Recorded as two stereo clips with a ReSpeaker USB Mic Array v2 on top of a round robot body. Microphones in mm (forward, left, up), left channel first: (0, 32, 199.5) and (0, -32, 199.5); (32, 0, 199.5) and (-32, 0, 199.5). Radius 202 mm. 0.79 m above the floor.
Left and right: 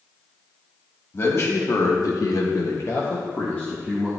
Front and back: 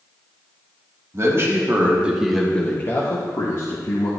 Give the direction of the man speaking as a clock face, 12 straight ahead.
7 o'clock.